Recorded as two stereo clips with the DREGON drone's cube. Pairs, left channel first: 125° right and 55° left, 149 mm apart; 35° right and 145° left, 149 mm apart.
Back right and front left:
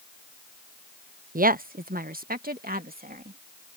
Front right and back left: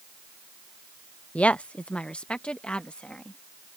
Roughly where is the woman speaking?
Ahead left.